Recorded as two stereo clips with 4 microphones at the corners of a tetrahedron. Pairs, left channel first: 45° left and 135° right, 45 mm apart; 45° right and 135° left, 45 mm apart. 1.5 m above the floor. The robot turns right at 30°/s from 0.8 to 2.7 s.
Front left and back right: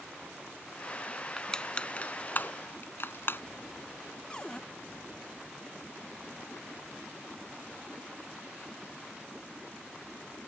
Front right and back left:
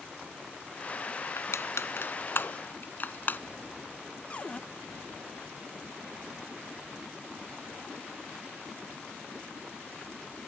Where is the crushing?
35° right; by 3.4 s 5° left.